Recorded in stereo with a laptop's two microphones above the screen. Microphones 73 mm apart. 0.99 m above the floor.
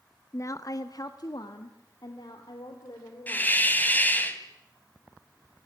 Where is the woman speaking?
40° left (ahead or behind), 0.8 m; by 3.7 s 80° left, 4 m.